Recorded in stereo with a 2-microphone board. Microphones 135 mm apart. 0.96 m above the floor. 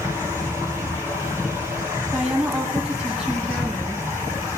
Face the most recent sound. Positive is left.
turn(degrees=-5)  # may be behind; listen again after turning